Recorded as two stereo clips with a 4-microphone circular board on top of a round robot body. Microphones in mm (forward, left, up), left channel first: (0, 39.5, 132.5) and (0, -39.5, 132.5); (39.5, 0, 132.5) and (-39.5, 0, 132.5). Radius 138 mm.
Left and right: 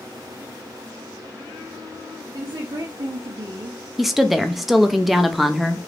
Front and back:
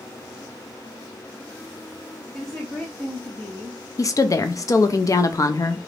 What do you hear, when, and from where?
2.3 s a woman speaking: 85° right, 0.8 m
4.0 s a woman speaking: straight ahead, 0.5 m